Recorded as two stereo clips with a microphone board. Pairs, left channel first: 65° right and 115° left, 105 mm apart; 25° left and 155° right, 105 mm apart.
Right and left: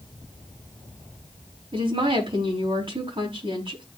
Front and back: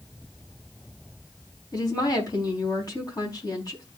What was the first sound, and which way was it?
A woman speaking, 75° left.